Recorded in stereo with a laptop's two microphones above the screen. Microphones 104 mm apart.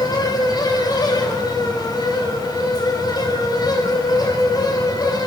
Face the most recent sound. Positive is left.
turn(degrees=40)  # may be behind; listen again after turning